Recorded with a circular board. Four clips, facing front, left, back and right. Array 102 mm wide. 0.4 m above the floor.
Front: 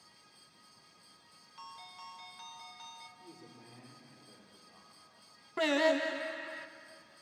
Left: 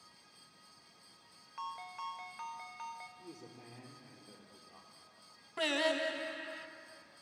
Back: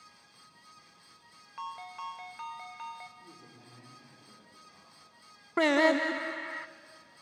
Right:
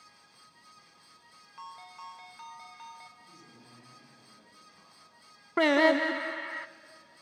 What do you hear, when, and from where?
1.6 s a ringtone: 160° left, 0.8 m
3.2 s a man speaking: 90° left, 8 m
5.6 s singing: 120° right, 0.6 m